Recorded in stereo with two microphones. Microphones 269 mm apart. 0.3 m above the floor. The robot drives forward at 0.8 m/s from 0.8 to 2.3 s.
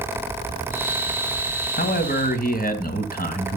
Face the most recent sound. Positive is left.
turn(degrees=35)  # may be behind; listen again after turning